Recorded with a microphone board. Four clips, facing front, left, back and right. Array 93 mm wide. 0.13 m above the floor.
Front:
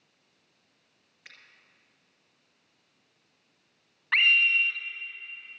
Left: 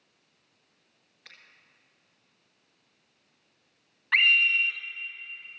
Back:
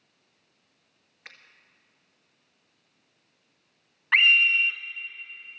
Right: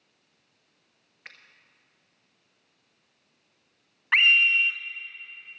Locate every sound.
1.2 s a finger snap: 125° right, 1.6 m
4.1 s a scream: 125° right, 1.2 m